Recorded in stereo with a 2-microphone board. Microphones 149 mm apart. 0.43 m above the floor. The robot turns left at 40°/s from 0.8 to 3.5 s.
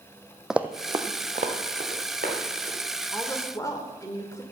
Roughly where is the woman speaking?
Centre.